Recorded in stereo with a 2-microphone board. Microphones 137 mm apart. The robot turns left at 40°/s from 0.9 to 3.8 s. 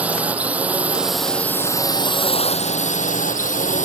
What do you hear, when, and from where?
0.0 s a drone: 170° right; by 3.9 s 75° left